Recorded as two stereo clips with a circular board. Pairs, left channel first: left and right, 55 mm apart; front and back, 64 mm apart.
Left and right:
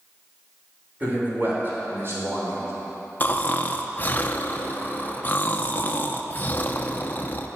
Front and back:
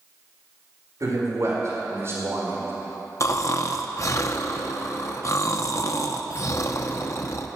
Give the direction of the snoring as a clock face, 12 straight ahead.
11 o'clock.